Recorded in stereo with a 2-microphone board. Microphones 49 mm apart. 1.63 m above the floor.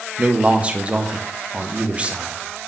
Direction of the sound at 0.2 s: 20° right (ahead or behind).